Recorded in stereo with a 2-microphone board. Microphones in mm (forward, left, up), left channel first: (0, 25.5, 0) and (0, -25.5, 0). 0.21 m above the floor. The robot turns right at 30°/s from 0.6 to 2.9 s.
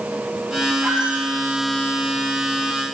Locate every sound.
0.8 s a squeak: 10° right (ahead or behind), 6 m; by 1.3 s 25° right (ahead or behind), 6 m